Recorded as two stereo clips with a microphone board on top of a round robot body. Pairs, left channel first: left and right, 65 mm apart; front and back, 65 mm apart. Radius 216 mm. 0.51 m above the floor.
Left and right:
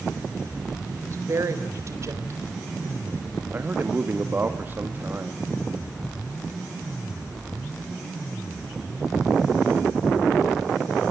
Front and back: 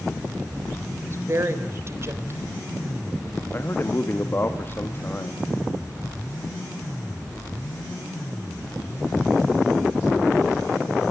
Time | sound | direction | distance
0.9 | a woman speaking | 135° right | 3.5 m
3.5 | a man speaking | 40° right | 1.6 m